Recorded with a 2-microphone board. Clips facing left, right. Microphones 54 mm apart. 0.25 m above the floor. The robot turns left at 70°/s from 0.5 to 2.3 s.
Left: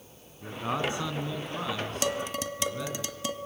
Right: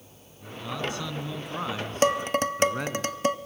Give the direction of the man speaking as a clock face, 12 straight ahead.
10 o'clock.